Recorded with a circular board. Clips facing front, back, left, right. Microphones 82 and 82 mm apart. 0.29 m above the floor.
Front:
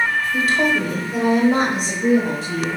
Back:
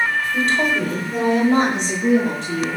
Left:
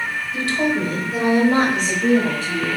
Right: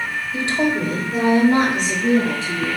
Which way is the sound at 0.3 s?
80° right.